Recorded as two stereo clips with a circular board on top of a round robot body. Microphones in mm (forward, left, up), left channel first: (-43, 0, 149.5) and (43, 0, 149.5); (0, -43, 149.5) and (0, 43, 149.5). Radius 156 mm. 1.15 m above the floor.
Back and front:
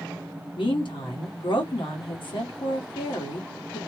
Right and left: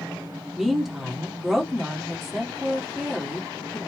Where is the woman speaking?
175° left, 1.4 m.